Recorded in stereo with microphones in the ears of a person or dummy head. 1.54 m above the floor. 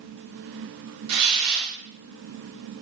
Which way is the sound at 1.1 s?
75° right (ahead or behind).